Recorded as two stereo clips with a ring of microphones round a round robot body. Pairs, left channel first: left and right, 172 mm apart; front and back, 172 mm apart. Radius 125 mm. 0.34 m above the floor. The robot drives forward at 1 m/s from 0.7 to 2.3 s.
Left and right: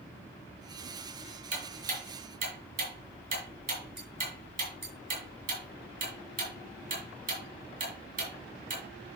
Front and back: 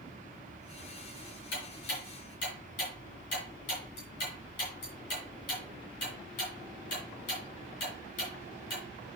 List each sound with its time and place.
1.5 s ticking: 50° right, 5.5 m; by 8.8 s 60° right, 5 m